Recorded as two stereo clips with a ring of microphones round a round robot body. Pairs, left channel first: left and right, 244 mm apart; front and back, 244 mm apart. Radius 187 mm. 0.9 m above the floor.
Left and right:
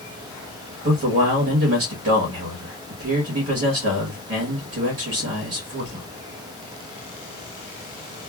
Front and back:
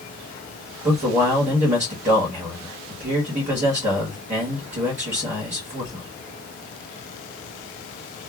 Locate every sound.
0.8 s a man speaking: 125° right, 1.1 m